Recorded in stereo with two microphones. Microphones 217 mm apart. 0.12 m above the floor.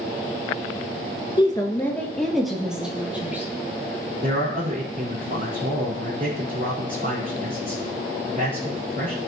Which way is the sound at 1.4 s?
20° left (ahead or behind).